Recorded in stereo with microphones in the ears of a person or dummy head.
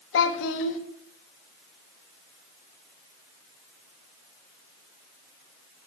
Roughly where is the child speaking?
Left.